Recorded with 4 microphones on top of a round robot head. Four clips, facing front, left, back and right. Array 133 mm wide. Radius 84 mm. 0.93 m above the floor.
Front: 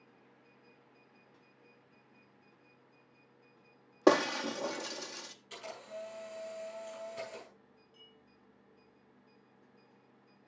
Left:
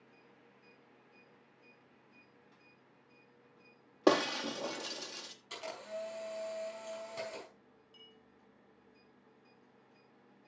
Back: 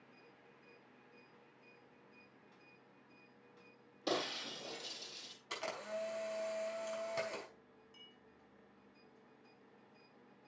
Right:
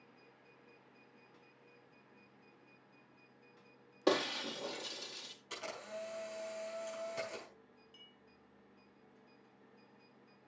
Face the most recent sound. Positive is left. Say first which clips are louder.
# left 3 dB, front 2 dB
turn(degrees=150)